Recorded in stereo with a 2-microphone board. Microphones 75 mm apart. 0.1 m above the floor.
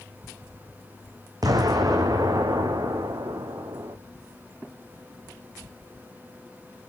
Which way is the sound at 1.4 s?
55° right (ahead or behind).